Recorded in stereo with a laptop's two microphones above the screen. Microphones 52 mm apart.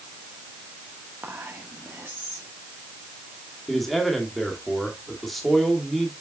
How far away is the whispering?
About 1.4 m.